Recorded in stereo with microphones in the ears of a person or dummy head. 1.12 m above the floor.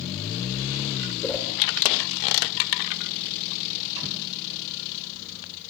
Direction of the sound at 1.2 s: 5° left (ahead or behind).